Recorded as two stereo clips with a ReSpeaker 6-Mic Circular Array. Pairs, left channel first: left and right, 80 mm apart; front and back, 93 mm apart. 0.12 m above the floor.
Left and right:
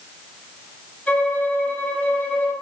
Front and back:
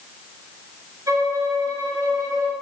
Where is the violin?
150° left, 1.3 m.